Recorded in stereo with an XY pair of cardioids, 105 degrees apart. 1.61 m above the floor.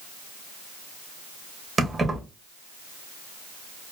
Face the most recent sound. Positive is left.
turn(degrees=-30)